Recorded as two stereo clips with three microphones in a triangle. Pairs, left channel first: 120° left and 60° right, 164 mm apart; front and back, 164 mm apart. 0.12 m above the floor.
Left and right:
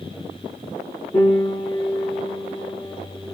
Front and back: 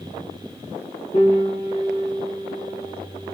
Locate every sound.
1.1 s a piano: 55° left, 4.5 m